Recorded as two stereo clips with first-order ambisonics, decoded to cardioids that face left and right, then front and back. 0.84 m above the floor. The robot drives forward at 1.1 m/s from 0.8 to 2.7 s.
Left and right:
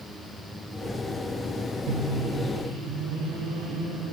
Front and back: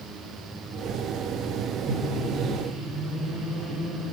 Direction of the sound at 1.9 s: 105° right.